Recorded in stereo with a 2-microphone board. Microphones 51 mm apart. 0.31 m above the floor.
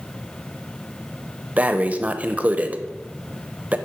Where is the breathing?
30° right (ahead or behind), 0.5 m.